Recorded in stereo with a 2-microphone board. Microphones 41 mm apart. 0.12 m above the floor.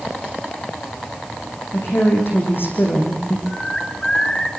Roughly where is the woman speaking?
Left.